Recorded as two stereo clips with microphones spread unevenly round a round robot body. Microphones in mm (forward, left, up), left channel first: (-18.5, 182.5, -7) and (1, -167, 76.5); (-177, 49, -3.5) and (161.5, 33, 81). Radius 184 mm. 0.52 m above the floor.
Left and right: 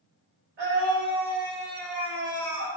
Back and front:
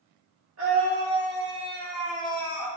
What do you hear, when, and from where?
0.6 s a scream: 35° right, 1.3 m; by 2.7 s 85° left, 1.6 m